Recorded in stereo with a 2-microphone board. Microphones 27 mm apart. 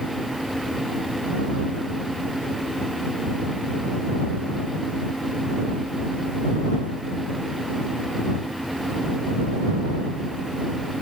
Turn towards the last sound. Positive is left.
No sound to turn to.